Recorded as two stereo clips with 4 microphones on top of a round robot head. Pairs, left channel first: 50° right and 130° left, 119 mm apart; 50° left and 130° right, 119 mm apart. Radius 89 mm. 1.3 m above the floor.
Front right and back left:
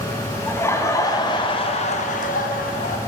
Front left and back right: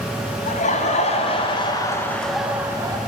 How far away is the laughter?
About 1.4 m.